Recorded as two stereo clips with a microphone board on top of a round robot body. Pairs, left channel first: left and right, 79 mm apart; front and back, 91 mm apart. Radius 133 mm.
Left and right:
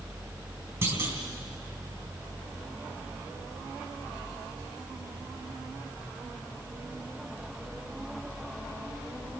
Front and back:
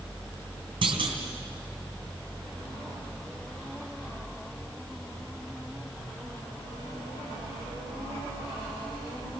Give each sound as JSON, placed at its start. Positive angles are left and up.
{"t": 0.8, "sound": "a clunk", "azimuth_deg": -150, "distance_m": 3.0}